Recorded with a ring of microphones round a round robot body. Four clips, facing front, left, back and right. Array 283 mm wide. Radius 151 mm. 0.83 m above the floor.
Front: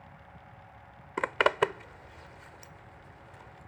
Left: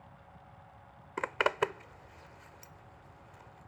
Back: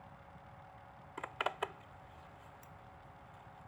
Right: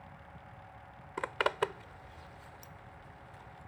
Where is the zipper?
10° left.